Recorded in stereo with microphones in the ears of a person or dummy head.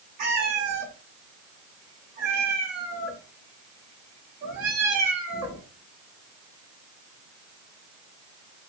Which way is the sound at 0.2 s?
45° right (ahead or behind).